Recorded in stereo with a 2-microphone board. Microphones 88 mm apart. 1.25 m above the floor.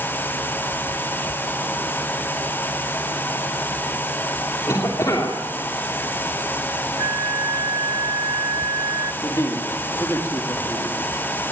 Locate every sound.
4.7 s a cough: 40° left (ahead or behind), 3 m
7.0 s a flute: 45° right (ahead or behind), 1.6 m
9.2 s a man speaking: 40° left (ahead or behind), 2.5 m